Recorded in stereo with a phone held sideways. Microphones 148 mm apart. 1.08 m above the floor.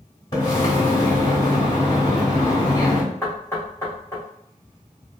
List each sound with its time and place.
0.3 s a splash: 30° left (ahead or behind), 1.7 m
3.2 s knocking: 20° left (ahead or behind), 1.5 m